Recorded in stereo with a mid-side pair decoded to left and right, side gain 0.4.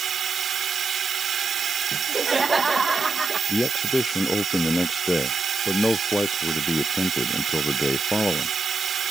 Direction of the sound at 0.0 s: 55° right.